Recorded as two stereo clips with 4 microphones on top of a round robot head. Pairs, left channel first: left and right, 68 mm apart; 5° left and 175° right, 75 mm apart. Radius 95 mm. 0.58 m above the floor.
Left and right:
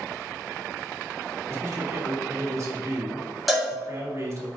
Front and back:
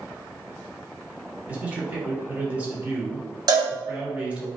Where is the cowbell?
175° right, 1.7 m.